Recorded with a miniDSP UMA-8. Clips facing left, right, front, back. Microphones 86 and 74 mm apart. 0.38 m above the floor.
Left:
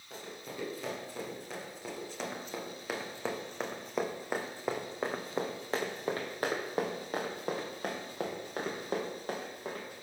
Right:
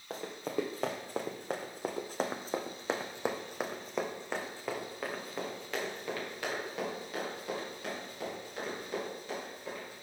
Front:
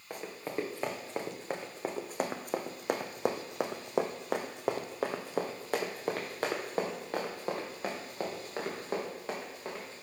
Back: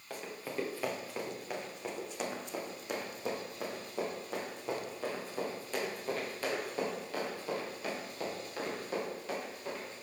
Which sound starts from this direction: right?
Running footsteps, at 0.1 s.